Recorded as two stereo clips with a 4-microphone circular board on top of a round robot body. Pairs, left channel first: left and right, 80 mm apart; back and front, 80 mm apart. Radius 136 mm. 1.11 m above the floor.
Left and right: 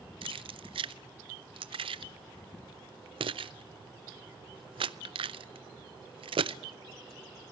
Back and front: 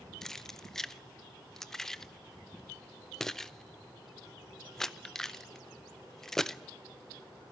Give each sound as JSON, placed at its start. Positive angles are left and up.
{"t": 0.2, "sound": "keys jangling", "azimuth_deg": -95, "distance_m": 0.5}